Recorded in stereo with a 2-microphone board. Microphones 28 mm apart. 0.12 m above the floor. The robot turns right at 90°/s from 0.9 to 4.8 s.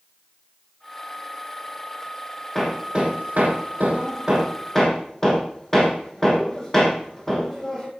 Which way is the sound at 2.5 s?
5° left (ahead or behind).